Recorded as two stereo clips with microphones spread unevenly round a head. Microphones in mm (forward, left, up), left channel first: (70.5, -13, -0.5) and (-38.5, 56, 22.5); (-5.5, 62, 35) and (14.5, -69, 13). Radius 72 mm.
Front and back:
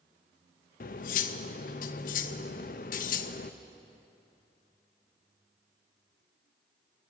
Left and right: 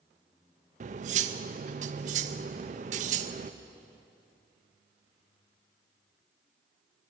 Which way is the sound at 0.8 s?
50° right.